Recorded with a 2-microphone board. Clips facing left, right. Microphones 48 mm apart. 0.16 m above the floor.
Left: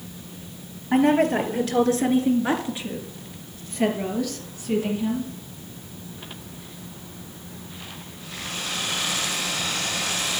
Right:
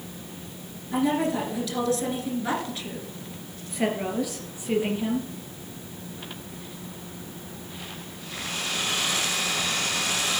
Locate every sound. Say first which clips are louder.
0.9 s a woman speaking: left 6 dB; 50° left (ahead or behind), 2.5 m; by 5.3 s 25° right (ahead or behind), 3.5 m